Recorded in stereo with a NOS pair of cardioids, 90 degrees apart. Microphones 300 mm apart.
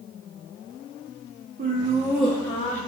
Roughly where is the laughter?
Ahead right.